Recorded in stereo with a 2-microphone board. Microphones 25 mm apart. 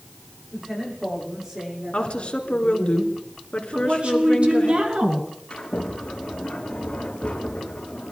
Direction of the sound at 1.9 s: 50° left (ahead or behind).